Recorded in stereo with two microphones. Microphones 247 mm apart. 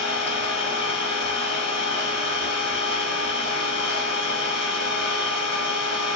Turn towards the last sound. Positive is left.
turn(degrees=55)  # may be behind; listen again after turning